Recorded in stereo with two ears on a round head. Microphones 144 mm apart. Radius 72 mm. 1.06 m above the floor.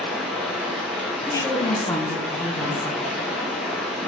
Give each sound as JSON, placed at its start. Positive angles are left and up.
{"t": 0.0, "sound": "running water", "side_deg": 0, "distance_m": 1.0}
{"t": 1.3, "sound": "a woman speaking", "side_deg": 20, "distance_m": 0.6}